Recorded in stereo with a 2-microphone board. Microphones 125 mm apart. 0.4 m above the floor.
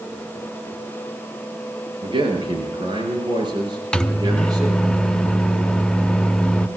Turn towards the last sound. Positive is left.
turn(degrees=10)  # may be behind; listen again after turning